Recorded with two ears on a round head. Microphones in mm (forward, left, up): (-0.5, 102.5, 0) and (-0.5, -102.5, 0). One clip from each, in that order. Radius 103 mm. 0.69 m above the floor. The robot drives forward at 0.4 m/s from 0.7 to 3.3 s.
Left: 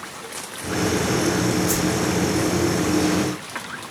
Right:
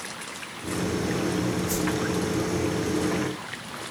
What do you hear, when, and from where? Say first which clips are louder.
1.7 s a whoosh: left 5 dB; 65° left (ahead or behind), 0.9 m; by 1.9 s 60° left (ahead or behind), 0.9 m